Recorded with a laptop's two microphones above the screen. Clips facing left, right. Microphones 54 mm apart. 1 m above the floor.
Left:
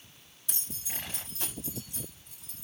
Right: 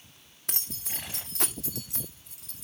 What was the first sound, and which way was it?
Keys jangling, 60° right (ahead or behind).